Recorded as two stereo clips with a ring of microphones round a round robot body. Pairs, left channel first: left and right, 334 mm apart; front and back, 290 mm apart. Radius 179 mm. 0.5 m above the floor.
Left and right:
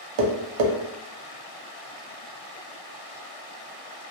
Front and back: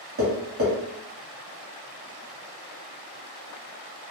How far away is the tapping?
About 0.5 m.